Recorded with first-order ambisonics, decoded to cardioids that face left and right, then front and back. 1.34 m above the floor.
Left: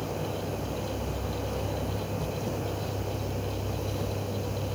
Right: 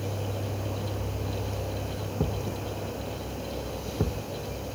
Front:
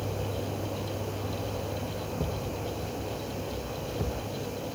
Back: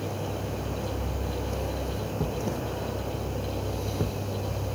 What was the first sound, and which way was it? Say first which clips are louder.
A thud: even, back 4 dB; 105° right.